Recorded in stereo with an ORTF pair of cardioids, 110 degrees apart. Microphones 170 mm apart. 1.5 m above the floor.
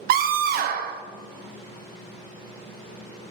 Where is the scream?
65° right, 0.6 m.